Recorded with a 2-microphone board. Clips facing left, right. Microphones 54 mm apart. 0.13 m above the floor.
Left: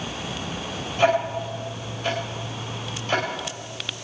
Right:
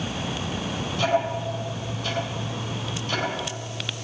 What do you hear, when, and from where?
1.0 s ticking: 50° left (ahead or behind), 4 m